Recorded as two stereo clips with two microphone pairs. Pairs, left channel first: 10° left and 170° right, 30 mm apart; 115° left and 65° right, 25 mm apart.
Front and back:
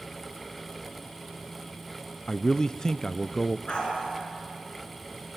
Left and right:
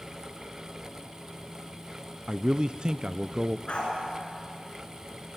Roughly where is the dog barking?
Ahead left.